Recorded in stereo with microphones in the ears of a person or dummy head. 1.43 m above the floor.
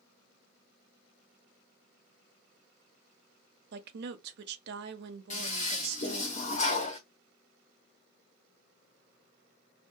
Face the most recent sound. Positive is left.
turn(degrees=35)  # may be behind; listen again after turning